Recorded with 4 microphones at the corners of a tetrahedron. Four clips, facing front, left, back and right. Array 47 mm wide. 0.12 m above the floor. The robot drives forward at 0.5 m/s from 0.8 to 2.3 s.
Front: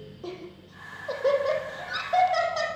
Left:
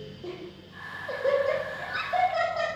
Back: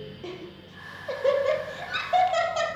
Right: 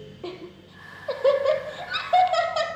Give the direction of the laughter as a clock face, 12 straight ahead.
3 o'clock.